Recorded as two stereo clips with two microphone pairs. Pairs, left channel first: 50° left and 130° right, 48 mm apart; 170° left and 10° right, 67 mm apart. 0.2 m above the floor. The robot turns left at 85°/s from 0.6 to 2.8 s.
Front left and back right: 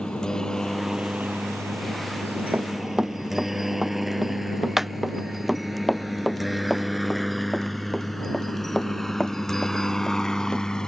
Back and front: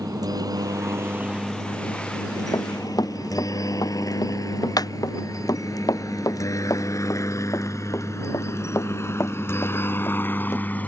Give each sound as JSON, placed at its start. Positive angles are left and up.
{"t": 0.0, "sound": "a helicopter", "azimuth_deg": -20}
{"t": 2.5, "sound": "running footsteps", "azimuth_deg": 180}